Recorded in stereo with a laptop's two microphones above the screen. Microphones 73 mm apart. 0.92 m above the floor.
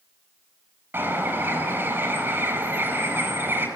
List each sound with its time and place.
0.9 s a bird: 30° right (ahead or behind), 6.5 m